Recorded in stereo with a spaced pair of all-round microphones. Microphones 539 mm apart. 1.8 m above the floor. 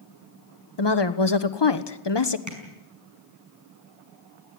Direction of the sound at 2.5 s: 35° right (ahead or behind).